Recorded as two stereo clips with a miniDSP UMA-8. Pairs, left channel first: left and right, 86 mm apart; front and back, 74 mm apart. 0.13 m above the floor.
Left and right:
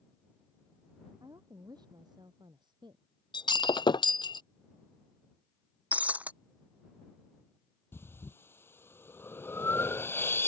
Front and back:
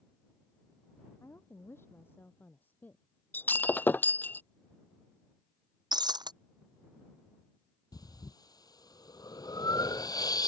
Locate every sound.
1.2 s a woman speaking: 50° right; by 3.0 s 65° right
3.3 s breaking glass: 65° left
5.9 s breaking glass: 165° right
7.9 s breathing: 30° left